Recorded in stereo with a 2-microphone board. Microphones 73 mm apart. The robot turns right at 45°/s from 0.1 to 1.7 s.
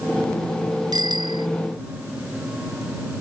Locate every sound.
0.9 s a bicycle bell: 65° right (ahead or behind); by 1.5 s 90° right